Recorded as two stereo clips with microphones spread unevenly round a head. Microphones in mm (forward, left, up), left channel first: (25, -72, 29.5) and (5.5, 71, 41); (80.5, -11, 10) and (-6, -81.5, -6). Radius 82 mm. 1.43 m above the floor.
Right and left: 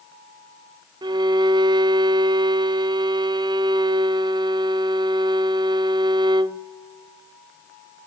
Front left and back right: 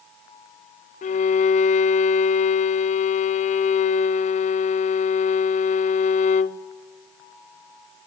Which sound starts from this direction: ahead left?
A violin, at 1.0 s.